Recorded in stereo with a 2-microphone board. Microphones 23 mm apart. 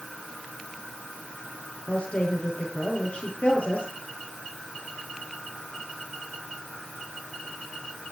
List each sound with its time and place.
1.9 s a woman speaking: 55° left (ahead or behind), 10 m